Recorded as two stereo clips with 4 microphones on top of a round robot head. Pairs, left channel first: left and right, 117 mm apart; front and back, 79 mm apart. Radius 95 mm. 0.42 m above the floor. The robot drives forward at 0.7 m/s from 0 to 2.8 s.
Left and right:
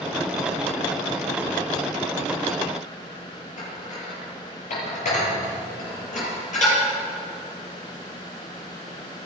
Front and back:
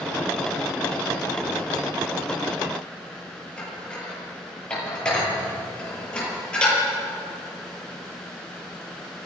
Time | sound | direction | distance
3.6 | dishes clattering | 80° left | 8 m